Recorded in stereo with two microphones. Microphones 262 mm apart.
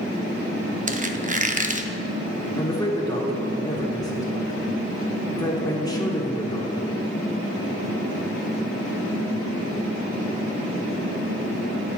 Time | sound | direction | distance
0.9 | a squeak | 30° right (ahead or behind) | 0.5 m
2.6 | a man speaking | 15° left (ahead or behind) | 1.3 m